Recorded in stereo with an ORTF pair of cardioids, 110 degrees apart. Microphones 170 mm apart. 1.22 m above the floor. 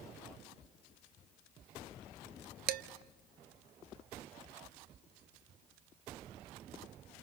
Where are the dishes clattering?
70° right, 1.1 m.